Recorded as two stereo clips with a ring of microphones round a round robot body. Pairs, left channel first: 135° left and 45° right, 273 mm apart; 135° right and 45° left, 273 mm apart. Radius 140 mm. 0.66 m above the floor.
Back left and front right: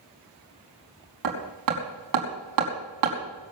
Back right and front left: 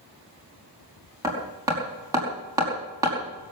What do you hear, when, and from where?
1.2 s hammering: 35° right, 5 m